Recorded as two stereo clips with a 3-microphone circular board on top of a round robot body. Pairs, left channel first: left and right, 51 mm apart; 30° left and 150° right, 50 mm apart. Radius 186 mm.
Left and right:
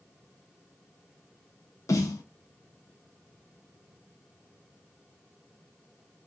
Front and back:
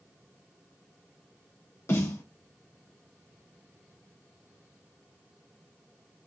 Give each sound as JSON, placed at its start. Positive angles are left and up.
{"t": 1.9, "sound": "a snare drum", "azimuth_deg": 75, "distance_m": 0.7}